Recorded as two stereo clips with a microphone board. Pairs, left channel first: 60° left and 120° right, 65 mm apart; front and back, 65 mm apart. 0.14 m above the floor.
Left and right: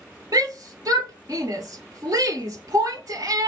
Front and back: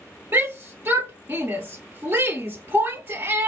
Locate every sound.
0.3 s a shout: 130° right, 2.5 m